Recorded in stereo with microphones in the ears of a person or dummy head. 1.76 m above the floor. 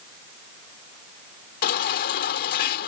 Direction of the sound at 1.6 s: 60° left (ahead or behind).